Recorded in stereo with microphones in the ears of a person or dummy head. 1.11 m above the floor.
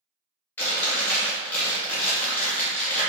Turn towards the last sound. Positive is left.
turn(degrees=5)  # may be behind; listen again after turning